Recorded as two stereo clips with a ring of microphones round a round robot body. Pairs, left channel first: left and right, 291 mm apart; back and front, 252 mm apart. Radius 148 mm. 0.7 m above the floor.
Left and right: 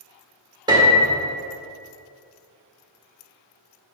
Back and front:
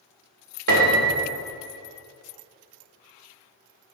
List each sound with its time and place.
0.7 s a piano: 15° right, 1.1 m